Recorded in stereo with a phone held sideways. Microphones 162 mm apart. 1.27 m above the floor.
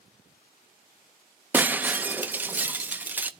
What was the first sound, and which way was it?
Breaking glass, 10° right (ahead or behind).